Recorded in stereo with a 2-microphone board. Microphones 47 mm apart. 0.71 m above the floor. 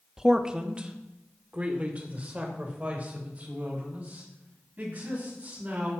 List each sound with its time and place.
0.2 s a man speaking: 10° right (ahead or behind), 0.7 m; by 5.9 s 35° right (ahead or behind), 5 m